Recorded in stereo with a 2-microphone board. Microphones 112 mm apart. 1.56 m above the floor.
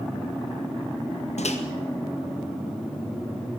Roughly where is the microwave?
Left.